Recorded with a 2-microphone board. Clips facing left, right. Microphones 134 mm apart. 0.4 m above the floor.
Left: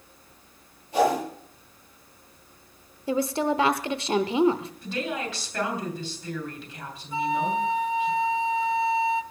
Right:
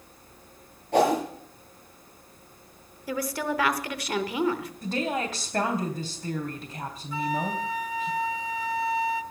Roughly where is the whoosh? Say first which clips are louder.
Right 1 dB; right.